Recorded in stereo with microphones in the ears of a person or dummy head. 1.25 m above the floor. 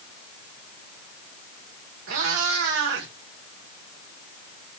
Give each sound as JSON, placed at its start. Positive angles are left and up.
{"t": 2.1, "sound": "a cat meowing", "side_deg": -70, "distance_m": 1.9}